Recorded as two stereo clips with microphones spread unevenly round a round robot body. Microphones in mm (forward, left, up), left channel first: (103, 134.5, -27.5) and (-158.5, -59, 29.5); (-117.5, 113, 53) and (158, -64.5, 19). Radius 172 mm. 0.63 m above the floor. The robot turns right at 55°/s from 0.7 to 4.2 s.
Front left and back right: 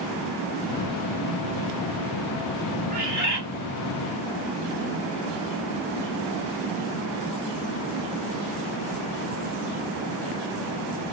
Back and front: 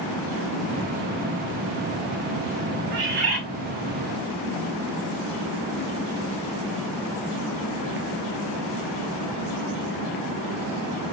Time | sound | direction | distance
2.9 | a bird | 75° right | 1.8 m